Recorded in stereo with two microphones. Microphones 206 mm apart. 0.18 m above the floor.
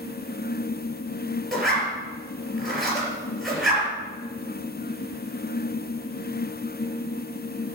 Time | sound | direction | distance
1.5 | a zipper | centre (ahead or behind) | 4 m